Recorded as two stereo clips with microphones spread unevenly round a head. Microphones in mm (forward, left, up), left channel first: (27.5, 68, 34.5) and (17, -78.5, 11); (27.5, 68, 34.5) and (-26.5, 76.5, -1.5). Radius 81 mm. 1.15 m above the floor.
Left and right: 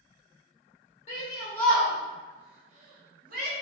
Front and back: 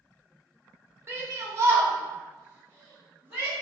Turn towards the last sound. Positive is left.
turn(degrees=-120)